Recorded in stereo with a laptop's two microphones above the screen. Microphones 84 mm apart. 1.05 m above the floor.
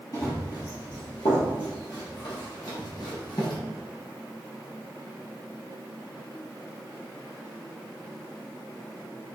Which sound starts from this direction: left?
Running footsteps, at 0.1 s.